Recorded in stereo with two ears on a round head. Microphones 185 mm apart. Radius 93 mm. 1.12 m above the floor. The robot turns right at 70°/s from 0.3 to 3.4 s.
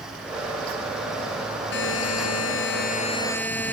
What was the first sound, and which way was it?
A buzzer, 55° left.